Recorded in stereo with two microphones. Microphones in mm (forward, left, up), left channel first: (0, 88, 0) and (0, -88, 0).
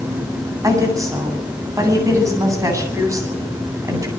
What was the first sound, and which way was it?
A woman speaking, 20° right (ahead or behind).